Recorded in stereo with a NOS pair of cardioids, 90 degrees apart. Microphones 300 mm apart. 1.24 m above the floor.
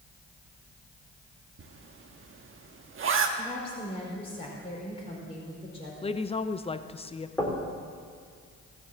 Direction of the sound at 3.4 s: 20° left.